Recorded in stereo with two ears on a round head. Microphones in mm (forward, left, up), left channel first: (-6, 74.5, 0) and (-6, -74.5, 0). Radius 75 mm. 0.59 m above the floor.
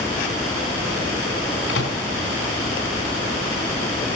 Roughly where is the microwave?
Left.